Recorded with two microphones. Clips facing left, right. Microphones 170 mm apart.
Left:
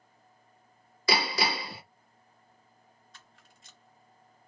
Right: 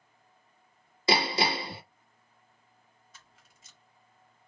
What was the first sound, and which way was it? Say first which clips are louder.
Hammering: right 2 dB; 25° right (ahead or behind).